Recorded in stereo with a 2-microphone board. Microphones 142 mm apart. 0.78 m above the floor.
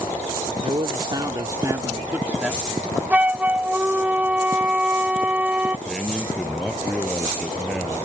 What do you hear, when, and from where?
0.6 s a man speaking: 40° right (ahead or behind); by 3.0 s 5° left (ahead or behind)
3.1 s a flute: 10° right (ahead or behind)
5.9 s a man speaking: 5° left (ahead or behind)